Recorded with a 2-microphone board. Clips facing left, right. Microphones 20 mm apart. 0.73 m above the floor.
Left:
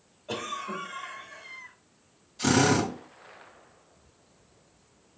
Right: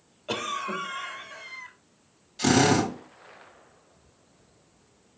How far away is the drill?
About 3 m.